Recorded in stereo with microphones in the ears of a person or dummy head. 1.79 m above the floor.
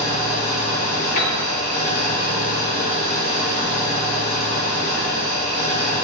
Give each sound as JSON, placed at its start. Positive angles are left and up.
{"t": 0.0, "sound": "an engine running", "side_deg": 35, "distance_m": 0.8}
{"t": 1.2, "sound": "a piano", "side_deg": 40, "distance_m": 0.7}